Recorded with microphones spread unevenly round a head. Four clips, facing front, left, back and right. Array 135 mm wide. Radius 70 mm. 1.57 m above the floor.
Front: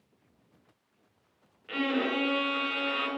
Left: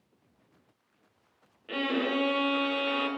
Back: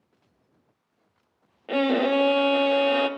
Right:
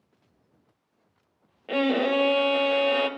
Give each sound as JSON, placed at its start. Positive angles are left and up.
{"t": 1.7, "sound": "a violin", "azimuth_deg": -120, "distance_m": 0.8}